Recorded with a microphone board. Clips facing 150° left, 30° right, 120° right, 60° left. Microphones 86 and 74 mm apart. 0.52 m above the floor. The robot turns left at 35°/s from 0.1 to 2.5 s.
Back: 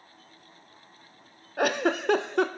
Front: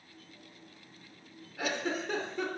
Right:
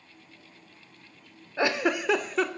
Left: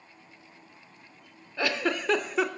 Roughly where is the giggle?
Behind.